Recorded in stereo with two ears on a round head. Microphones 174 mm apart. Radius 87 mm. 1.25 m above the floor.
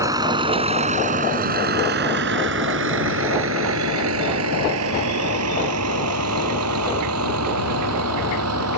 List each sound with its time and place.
0.0 s a vehicle: 15° right (ahead or behind); by 8.8 s 85° right